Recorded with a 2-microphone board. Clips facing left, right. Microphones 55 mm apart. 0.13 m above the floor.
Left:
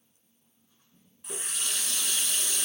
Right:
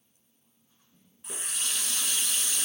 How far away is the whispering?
I don't hear whispering.